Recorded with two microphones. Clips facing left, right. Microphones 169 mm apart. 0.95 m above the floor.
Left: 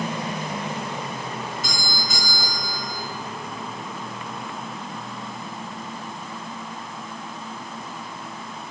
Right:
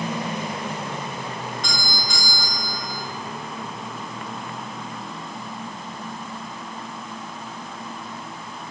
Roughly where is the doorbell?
Centre.